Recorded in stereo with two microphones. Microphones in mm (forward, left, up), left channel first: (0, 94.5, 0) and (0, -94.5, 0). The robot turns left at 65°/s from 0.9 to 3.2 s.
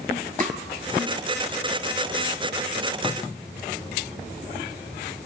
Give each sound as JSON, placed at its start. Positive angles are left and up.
{"t": 0.4, "sound": "tapping", "side_deg": -45, "distance_m": 1.8}